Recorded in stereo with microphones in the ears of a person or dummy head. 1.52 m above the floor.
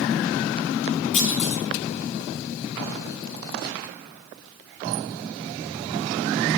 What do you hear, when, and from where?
1.1 s a clunk: 40° left (ahead or behind), 2.0 m